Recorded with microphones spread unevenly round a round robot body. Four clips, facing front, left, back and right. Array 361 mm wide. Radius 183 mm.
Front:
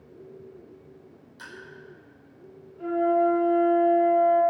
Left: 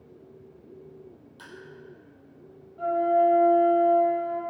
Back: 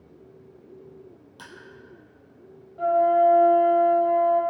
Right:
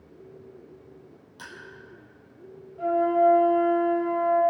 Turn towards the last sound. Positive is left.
turn(degrees=180)